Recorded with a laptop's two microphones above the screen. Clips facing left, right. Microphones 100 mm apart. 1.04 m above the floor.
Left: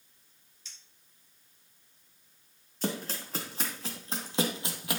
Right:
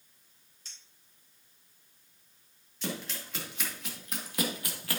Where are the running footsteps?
40° left (ahead or behind), 3 m; by 5.0 s 15° left (ahead or behind), 1.8 m.